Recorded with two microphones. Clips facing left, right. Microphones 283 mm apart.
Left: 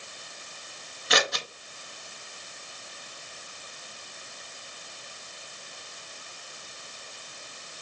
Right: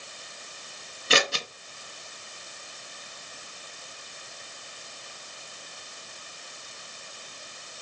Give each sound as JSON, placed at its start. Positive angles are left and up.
{"t": 1.1, "sound": "scissors", "side_deg": -35, "distance_m": 0.5}